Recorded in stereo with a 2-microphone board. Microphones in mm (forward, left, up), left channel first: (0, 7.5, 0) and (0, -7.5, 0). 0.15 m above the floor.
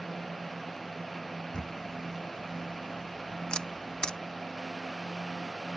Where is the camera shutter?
85° left.